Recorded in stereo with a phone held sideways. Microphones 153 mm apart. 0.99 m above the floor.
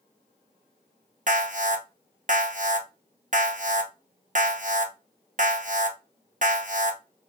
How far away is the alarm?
About 0.6 m.